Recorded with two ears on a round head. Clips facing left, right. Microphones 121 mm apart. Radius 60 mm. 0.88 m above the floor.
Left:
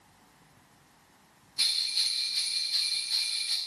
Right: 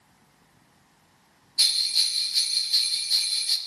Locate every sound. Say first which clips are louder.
1.6 s a bell: right 4 dB; 50° right (ahead or behind), 1.2 m